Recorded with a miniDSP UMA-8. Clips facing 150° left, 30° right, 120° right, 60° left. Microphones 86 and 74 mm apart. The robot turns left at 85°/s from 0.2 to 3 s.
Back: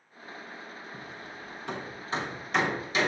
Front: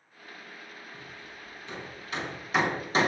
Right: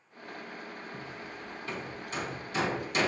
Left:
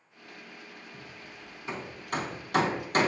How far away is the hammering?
About 3 m.